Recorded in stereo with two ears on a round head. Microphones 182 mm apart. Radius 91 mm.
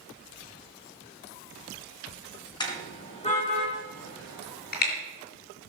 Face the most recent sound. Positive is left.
turn(degrees=50)  # may be behind; listen again after turning